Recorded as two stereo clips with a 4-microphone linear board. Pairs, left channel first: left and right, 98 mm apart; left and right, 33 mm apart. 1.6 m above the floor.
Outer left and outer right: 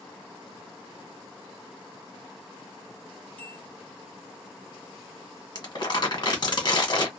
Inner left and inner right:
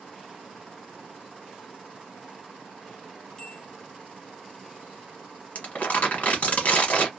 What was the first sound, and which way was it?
A bell, 15° left (ahead or behind).